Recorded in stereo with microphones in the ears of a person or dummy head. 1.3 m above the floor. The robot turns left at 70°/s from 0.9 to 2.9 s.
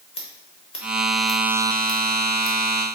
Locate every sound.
0.1 s scissors: 30° left (ahead or behind), 0.9 m; by 2.6 s 35° left (ahead or behind), 0.9 m